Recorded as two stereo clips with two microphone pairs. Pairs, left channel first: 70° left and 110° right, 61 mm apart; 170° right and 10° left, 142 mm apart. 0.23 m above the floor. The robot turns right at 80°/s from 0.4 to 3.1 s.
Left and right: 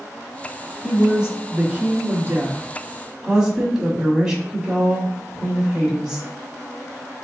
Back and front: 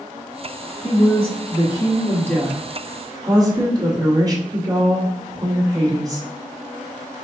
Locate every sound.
0.8 s a woman speaking: 145° left, 1.5 m; by 6.3 s 35° right, 1.5 m